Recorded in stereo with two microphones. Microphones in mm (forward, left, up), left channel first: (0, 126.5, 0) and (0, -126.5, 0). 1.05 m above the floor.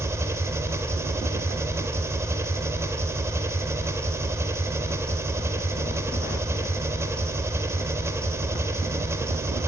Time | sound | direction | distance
0.0 | an engine running | 10° right (ahead or behind) | 1.6 m